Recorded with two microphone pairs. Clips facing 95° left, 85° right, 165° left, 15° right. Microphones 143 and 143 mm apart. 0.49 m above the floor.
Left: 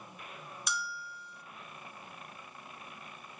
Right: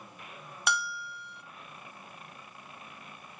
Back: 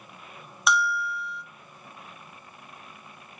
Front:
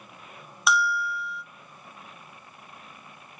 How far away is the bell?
About 0.5 m.